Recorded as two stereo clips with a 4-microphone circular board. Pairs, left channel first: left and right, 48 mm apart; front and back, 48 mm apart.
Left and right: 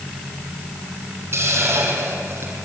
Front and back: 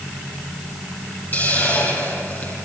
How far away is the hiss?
About 5.5 m.